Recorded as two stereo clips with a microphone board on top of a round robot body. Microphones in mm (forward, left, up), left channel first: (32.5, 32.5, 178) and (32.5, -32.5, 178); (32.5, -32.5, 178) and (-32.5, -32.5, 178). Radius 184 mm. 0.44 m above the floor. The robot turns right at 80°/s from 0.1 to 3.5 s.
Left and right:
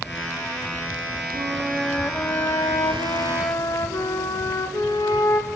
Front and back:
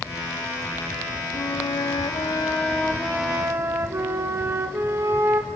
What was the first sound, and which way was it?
A flute, 40° right.